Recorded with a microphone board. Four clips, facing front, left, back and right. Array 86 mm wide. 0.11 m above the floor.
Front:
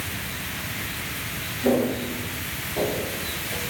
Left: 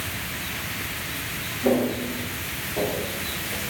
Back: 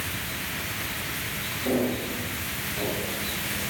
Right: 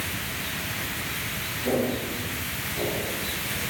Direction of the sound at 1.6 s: 55° left.